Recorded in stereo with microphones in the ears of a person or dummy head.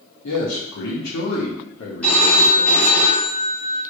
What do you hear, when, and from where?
0.2 s a man speaking: 75° left (ahead or behind), 1.8 m; by 3.0 s 30° left (ahead or behind), 0.5 m
2.0 s a phone ringing: 5° left (ahead or behind), 1.1 m